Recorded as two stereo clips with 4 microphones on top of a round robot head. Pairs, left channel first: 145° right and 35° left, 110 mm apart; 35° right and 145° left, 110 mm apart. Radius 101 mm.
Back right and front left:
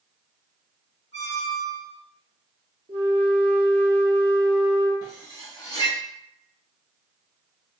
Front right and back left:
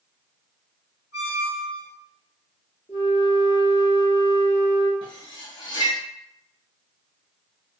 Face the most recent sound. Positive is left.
turn(degrees=-85)